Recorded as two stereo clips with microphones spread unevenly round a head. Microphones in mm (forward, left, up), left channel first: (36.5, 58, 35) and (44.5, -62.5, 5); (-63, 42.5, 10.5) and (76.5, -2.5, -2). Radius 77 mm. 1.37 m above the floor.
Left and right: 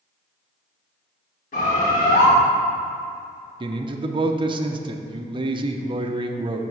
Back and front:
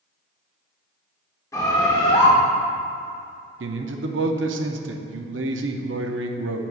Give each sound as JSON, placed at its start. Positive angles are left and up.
{"t": 1.5, "sound": "a bird", "azimuth_deg": 95, "distance_m": 2.0}
{"t": 3.6, "sound": "a man speaking", "azimuth_deg": -35, "distance_m": 0.6}